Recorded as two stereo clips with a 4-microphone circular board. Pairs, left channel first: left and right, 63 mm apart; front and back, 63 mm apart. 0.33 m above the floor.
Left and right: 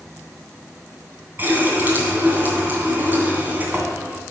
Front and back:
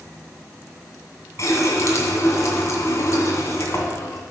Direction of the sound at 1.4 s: 35° right.